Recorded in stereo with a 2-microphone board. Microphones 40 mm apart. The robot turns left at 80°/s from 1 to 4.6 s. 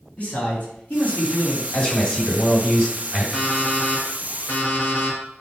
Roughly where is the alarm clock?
Behind.